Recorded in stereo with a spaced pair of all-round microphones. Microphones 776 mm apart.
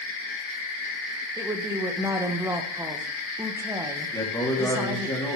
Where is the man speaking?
5° left (ahead or behind), 3.5 m.